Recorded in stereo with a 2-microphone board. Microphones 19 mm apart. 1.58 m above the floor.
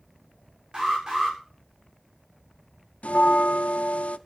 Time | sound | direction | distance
0.7 | an alarm | 35° right (ahead or behind) | 8.5 m
3.0 | a bell | 85° left | 0.6 m